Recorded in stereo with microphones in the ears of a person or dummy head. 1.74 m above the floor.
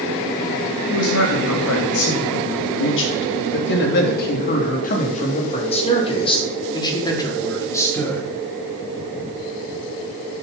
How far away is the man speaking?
About 4 m.